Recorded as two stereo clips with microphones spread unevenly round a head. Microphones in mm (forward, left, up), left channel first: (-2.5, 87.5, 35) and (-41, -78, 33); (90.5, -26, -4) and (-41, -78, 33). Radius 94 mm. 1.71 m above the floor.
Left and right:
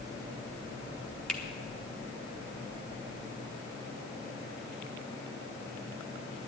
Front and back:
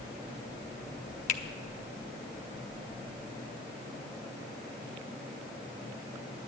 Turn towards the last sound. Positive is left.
turn(degrees=-10)